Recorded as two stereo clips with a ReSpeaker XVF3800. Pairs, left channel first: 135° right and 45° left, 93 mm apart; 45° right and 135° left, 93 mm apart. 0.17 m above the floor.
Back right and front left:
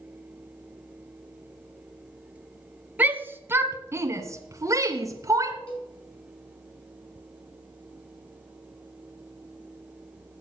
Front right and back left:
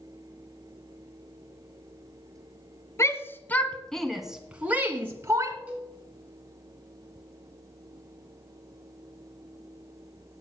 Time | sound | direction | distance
3.0 | a shout | 15° right | 1.5 m
5.7 | a cowbell | 150° right | 4.5 m